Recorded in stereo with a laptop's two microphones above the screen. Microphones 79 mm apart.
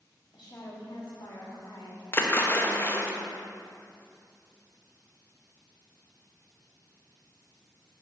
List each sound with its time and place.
0.3 s a woman speaking: 70° left (ahead or behind), 2.5 m; by 3.1 s 65° left (ahead or behind), 2.5 m
2.1 s a splash: 30° left (ahead or behind), 1.1 m